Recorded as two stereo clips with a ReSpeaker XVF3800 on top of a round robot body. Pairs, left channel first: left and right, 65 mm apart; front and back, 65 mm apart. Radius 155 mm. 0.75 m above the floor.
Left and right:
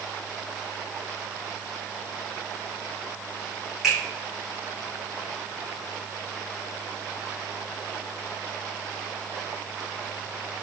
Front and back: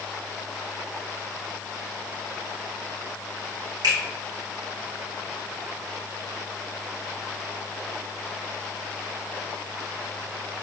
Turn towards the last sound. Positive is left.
turn(degrees=-175)